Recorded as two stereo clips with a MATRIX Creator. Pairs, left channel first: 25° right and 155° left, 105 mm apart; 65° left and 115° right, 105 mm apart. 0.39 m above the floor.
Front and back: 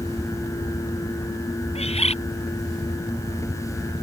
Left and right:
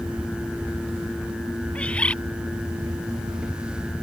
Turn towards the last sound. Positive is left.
turn(degrees=-10)